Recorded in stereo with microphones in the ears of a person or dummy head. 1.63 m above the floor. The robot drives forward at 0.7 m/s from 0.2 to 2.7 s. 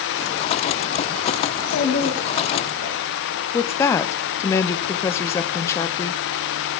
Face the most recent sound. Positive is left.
turn(degrees=15)  # may be behind; listen again after turning